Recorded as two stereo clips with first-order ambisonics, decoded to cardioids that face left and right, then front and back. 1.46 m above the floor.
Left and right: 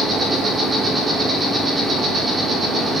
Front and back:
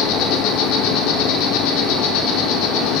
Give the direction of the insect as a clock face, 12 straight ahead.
1 o'clock.